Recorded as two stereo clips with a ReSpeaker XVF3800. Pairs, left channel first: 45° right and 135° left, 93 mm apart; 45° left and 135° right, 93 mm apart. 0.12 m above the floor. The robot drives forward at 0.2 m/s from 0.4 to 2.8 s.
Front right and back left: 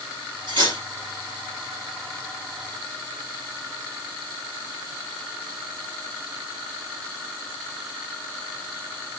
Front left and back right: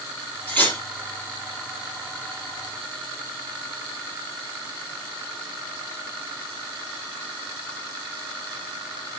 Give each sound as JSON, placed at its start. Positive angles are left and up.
{"t": 0.5, "sound": "cutlery clinking", "azimuth_deg": 115, "distance_m": 1.9}